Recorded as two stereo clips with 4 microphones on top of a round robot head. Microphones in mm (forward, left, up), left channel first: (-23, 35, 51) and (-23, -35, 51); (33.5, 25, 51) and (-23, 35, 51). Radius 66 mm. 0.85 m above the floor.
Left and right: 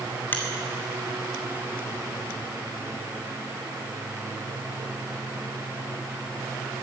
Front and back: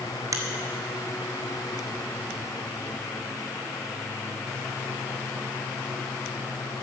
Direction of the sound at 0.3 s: 155° left.